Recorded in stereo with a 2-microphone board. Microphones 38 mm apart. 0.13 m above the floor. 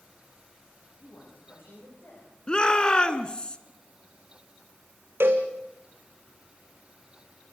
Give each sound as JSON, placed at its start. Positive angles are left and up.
{"t": 1.0, "sound": "a man speaking", "side_deg": 75, "distance_m": 9.5}
{"t": 2.5, "sound": "a shout", "side_deg": 25, "distance_m": 1.1}
{"t": 5.2, "sound": "a cowbell", "side_deg": -85, "distance_m": 2.0}